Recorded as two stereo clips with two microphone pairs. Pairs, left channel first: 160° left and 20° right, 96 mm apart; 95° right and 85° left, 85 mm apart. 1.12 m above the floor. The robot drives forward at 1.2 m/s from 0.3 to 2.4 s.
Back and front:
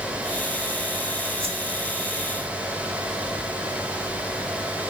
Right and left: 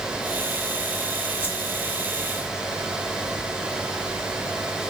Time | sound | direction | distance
1.4 | a whoosh | 30° right | 1.6 m